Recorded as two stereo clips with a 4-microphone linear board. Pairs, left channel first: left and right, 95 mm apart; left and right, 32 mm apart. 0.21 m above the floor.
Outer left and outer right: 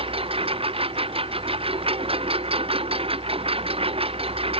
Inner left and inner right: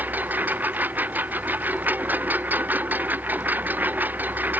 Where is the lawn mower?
70° right (ahead or behind); by 4.6 s 75° right (ahead or behind).